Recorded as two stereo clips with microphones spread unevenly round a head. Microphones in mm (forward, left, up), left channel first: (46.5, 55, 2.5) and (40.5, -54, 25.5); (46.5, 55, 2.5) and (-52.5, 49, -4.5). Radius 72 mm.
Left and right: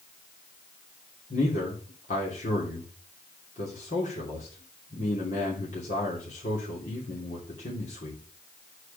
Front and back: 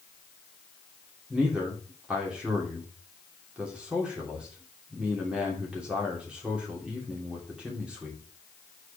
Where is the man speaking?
105° left, 3 m.